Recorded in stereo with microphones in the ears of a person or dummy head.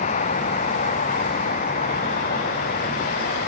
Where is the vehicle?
40° left (ahead or behind); by 3.5 s 45° left (ahead or behind).